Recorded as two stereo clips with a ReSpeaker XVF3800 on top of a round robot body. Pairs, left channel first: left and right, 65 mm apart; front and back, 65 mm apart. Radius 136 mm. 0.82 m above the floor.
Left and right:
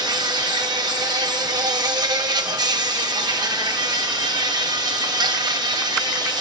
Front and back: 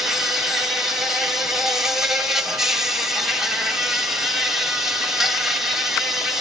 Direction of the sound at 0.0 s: 95° right.